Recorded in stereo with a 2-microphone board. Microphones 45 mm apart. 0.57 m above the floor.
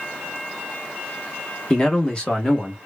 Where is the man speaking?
20° left (ahead or behind), 0.9 m; by 2.8 s 15° left (ahead or behind), 1.1 m.